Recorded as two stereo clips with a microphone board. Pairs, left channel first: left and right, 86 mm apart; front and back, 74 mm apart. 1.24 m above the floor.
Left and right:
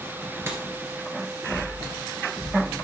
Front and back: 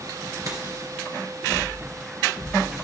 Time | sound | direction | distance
0.5 | a dropped coin | 150° right | 2.5 m